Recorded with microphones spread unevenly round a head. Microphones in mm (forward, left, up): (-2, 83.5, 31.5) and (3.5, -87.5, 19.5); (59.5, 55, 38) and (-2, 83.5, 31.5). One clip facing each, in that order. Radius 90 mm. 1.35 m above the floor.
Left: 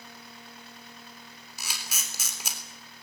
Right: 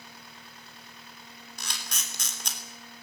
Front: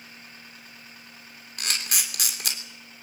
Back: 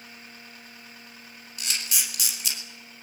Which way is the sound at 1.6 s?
10° left.